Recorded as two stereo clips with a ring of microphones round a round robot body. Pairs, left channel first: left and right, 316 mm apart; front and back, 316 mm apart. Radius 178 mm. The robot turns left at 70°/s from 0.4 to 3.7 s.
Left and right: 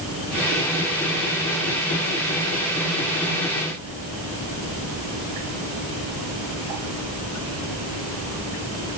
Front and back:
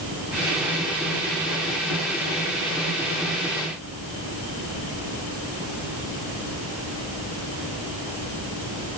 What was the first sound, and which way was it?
Only background noise.